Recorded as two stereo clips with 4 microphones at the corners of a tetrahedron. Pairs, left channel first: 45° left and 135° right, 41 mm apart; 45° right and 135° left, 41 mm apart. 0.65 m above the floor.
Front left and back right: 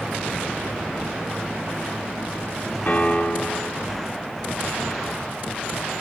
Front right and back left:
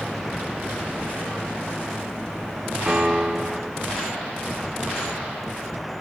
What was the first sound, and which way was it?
A piano, 75° left.